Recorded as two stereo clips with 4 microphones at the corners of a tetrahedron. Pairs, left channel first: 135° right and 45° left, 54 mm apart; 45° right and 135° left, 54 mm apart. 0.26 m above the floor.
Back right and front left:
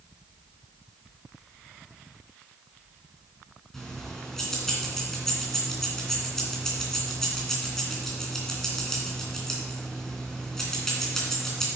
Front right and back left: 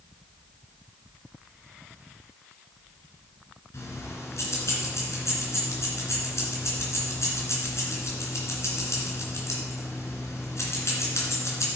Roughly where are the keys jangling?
Ahead right.